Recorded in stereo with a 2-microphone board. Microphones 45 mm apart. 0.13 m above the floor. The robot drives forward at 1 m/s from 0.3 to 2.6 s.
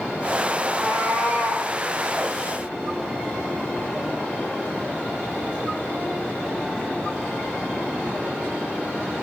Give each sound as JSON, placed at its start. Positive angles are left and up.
{"t": 0.6, "sound": "a cat meowing", "side_deg": -60, "distance_m": 4.5}